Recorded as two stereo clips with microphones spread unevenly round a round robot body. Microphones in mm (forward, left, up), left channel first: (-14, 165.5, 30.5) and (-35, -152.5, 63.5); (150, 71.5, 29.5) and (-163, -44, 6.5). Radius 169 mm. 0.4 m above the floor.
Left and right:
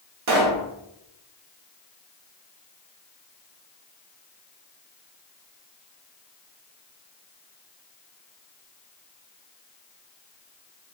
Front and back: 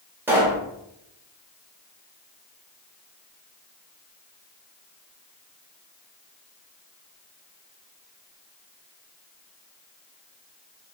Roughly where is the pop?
Right.